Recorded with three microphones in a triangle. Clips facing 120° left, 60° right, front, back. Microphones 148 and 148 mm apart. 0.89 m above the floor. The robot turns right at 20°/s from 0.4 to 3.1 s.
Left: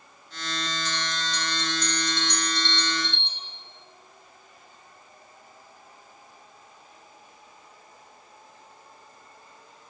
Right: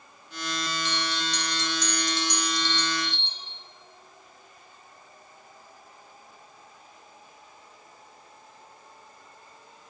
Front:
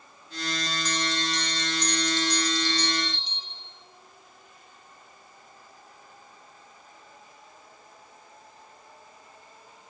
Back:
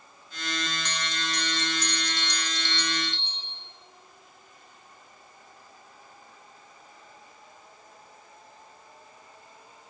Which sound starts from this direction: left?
A bell, at 0.8 s.